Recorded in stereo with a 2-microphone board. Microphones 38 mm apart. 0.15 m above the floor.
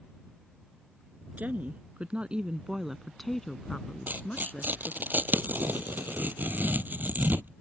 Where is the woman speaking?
50° right (ahead or behind); by 5.1 s 45° left (ahead or behind).